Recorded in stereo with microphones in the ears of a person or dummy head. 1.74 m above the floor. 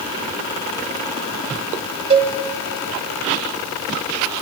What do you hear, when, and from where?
2.1 s a cowbell: 35° right (ahead or behind), 1.5 m